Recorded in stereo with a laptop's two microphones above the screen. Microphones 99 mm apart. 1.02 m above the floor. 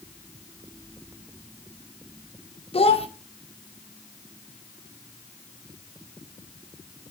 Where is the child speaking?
75° left (ahead or behind), 0.7 m.